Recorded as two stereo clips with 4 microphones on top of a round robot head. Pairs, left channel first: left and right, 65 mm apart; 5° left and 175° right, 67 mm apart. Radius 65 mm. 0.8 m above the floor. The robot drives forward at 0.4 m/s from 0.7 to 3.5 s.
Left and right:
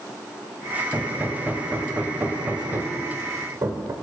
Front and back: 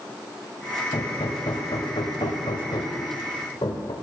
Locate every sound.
0.9 s hammering: 20° right, 1.9 m; by 3.9 s 40° right, 1.0 m